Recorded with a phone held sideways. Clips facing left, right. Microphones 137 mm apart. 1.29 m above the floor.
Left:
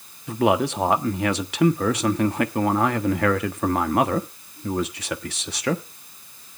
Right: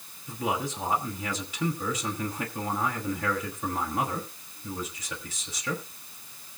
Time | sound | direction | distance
0.3 | a man speaking | 70° left (ahead or behind) | 1.2 m